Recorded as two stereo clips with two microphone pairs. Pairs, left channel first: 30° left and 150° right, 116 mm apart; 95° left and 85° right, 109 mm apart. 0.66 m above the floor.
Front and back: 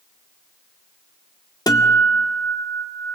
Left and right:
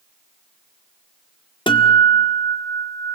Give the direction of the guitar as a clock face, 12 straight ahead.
9 o'clock.